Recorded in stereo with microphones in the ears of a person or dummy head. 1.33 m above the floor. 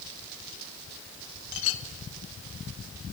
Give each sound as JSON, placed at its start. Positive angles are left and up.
{"t": 1.5, "sound": "a clink", "side_deg": 75, "distance_m": 1.7}